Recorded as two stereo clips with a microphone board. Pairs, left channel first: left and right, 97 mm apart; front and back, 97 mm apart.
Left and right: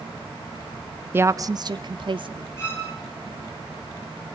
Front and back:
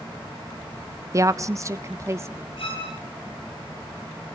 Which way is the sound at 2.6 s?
25° left.